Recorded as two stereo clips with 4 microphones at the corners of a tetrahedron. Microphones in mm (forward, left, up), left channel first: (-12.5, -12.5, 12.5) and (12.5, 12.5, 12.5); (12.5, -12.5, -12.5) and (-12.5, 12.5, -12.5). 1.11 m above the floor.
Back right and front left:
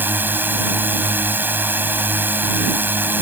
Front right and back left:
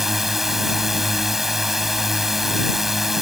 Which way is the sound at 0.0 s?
55° left.